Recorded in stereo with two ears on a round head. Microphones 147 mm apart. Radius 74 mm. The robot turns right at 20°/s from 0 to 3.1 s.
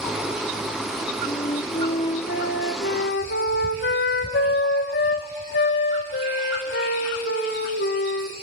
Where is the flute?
35° left, 2.5 m; by 8.3 s 70° left, 2.5 m.